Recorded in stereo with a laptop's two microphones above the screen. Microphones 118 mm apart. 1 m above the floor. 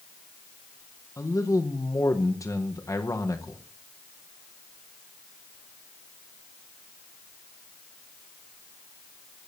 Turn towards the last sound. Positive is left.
turn(degrees=30)  # may be behind; listen again after turning